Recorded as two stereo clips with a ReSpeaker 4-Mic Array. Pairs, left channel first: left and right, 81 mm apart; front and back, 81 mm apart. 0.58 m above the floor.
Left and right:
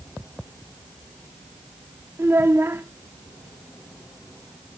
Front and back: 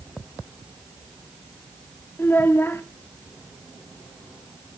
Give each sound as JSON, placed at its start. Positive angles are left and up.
{"t": 2.2, "sound": "a child speaking", "azimuth_deg": -50, "distance_m": 0.6}